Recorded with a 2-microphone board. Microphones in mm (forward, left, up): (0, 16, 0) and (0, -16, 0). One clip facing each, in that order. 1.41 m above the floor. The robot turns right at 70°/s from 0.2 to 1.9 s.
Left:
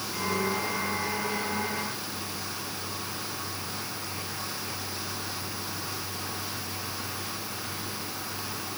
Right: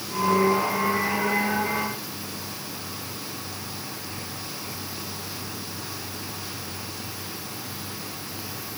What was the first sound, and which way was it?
Only background noise.